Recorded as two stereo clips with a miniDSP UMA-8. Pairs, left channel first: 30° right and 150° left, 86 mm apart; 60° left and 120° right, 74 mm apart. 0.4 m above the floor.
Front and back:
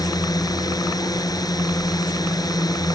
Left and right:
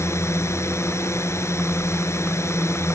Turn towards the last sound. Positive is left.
turn(degrees=10)